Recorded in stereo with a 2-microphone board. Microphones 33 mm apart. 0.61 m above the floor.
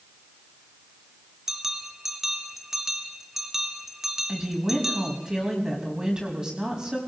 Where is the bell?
10° right (ahead or behind), 1.1 m.